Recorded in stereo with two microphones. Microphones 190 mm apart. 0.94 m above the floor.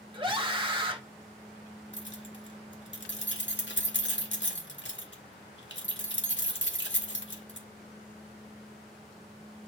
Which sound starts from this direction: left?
Keys jangling, at 1.9 s.